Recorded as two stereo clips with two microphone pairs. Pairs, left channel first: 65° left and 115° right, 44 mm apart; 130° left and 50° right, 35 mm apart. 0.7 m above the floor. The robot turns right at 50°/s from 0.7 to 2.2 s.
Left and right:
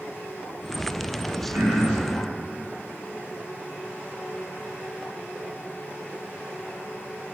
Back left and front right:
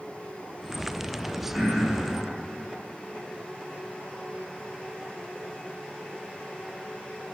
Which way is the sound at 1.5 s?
125° right.